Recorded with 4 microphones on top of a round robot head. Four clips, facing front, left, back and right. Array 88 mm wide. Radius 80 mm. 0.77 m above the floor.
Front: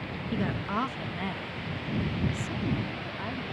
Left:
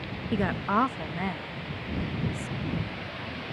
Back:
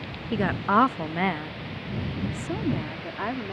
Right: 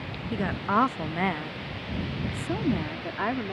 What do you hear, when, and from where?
0.3 s a woman speaking: 160° left; by 3.5 s 120° right